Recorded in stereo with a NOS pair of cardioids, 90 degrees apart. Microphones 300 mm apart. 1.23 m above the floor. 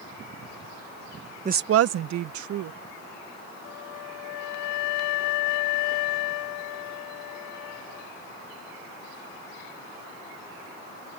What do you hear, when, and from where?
1.4 s a woman speaking: 20° right; by 2.8 s 75° right
3.6 s a flute: 65° left